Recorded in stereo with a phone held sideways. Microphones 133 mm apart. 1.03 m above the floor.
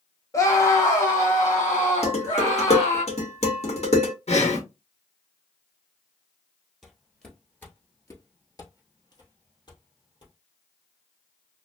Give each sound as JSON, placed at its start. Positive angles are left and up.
{"t": 0.3, "sound": "a scream", "side_deg": 25, "distance_m": 0.6}
{"t": 2.0, "sound": "dishes clattering", "side_deg": 55, "distance_m": 1.3}
{"t": 4.3, "sound": "breathing", "side_deg": 55, "distance_m": 1.0}
{"t": 6.8, "sound": "footsteps", "side_deg": 0, "distance_m": 1.2}